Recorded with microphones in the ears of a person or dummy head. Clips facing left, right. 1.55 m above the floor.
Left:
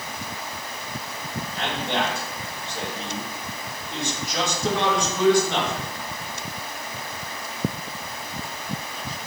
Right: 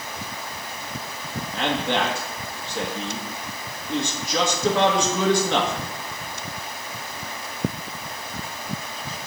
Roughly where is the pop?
I don't hear a pop.